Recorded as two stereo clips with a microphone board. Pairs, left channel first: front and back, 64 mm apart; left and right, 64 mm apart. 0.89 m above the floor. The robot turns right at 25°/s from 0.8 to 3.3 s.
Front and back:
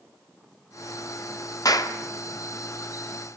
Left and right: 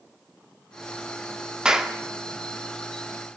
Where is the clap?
10° right, 2 m; by 2.0 s 5° right, 2 m.